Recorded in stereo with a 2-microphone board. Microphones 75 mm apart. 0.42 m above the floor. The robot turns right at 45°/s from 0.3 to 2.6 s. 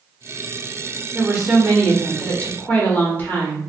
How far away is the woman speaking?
About 0.9 m.